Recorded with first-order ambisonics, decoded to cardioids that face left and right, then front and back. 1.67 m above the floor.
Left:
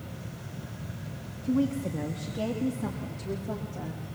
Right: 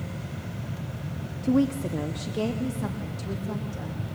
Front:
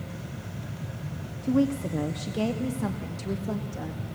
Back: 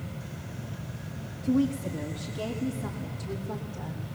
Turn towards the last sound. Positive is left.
turn(degrees=-20)